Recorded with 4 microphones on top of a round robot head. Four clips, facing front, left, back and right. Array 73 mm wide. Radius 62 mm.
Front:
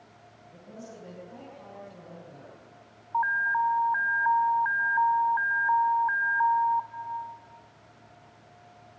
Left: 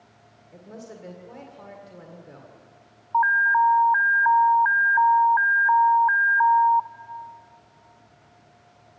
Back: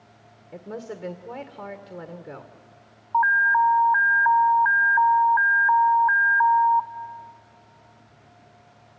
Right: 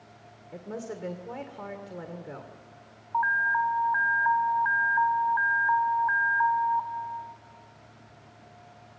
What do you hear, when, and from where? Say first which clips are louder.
0.5 s a woman speaking: right 5 dB, back 10 dB; 155° right, 1.9 m
3.1 s an alarm: left 6 dB, back 7 dB; 140° left, 1.0 m